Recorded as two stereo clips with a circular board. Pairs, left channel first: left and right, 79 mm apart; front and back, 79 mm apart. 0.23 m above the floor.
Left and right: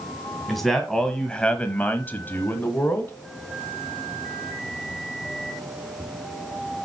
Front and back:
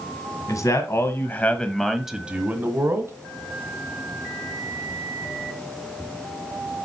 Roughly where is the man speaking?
Ahead.